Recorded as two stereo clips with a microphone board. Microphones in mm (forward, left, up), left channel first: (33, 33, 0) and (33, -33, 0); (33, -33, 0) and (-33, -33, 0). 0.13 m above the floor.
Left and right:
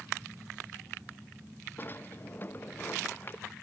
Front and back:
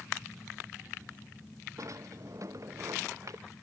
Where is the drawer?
145° left.